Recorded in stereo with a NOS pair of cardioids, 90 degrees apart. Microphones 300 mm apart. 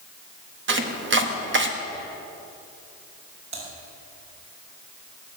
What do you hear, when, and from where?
0.7 s chopping: 40° right, 1.5 m
3.5 s typing on a keyboard: 60° right, 6 m